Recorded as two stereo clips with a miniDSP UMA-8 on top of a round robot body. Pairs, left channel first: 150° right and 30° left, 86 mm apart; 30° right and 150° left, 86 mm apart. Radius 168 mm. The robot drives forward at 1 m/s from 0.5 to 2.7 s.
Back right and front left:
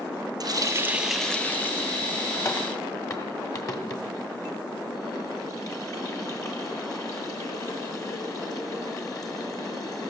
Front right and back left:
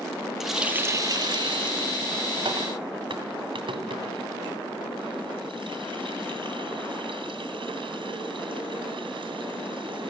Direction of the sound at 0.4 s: 65° left.